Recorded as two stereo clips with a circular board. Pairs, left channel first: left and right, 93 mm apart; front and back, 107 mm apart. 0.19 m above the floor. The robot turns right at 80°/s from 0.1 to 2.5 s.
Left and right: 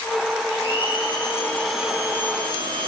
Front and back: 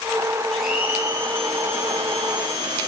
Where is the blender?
80° left, 6 m; by 2.9 s 120° right, 6 m.